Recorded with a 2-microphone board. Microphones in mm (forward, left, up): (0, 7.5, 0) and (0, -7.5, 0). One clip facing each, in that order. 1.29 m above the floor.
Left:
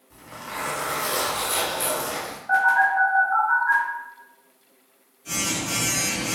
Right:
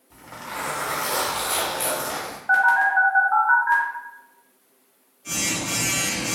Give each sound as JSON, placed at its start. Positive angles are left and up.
{"t": 0.1, "sound": "a zipper", "side_deg": -20, "distance_m": 1.6}
{"t": 2.5, "sound": "a phone buzzing", "side_deg": -45, "distance_m": 1.4}